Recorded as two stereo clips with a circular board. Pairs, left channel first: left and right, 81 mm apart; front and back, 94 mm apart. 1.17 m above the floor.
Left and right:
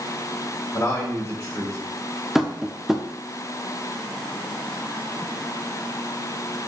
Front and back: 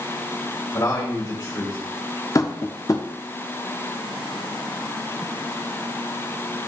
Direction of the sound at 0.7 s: 40° left.